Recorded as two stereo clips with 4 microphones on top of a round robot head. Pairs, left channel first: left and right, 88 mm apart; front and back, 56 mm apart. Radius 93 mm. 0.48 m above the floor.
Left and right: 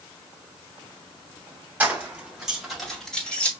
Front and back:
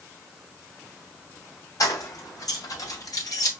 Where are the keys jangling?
15° right, 3 m; by 3.5 s 15° left, 2.5 m.